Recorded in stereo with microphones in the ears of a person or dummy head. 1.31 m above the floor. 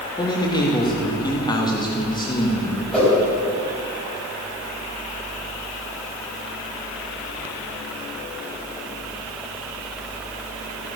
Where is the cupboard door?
No cupboard door in this recording.